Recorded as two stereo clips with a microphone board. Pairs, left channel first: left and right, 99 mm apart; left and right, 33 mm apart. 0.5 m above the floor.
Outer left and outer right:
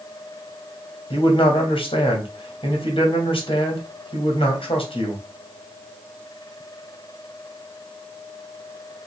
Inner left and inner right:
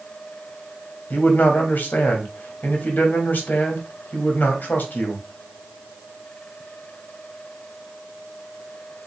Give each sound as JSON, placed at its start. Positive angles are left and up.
{"t": 1.1, "sound": "a man speaking", "side_deg": 65, "distance_m": 2.0}